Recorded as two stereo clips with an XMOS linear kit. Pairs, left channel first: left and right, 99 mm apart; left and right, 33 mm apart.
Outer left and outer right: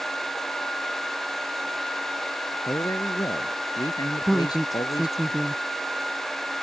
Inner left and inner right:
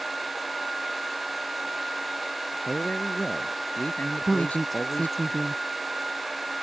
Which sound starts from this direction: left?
A man speaking, at 2.6 s.